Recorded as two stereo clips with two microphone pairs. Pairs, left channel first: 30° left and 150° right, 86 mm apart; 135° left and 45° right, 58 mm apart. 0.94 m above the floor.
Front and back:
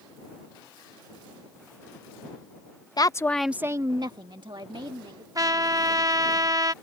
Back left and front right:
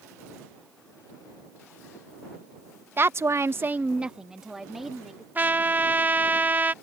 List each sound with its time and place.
3.0 s a woman speaking: 5° right; by 5.2 s 135° right
5.3 s a trumpet: 105° right